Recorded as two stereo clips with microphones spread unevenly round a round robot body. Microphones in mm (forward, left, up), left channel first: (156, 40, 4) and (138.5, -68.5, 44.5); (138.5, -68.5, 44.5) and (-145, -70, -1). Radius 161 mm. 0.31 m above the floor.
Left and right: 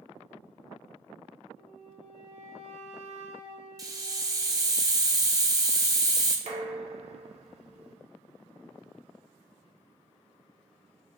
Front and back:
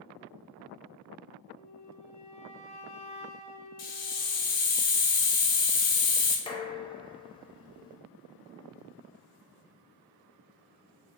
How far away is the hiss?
About 1.1 m.